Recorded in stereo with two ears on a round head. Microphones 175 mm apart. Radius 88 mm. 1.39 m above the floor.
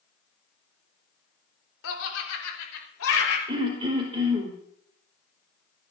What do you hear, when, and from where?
1.8 s laughter: 85° left, 4 m; by 3.4 s 80° left, 5.5 m
3.5 s throat clearing: 25° right (ahead or behind), 4.5 m